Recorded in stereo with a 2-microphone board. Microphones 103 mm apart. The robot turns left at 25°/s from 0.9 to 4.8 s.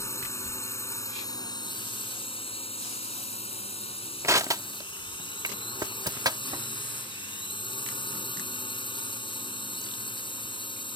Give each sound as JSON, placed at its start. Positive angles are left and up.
{"t": 0.0, "sound": "a drone", "azimuth_deg": 150}
{"t": 4.2, "sound": "crushing", "side_deg": -30}